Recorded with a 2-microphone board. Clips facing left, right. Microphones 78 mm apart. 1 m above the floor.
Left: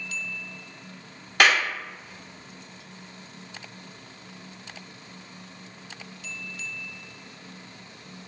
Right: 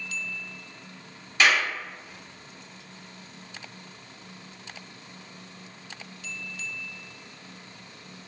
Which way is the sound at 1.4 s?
60° left (ahead or behind).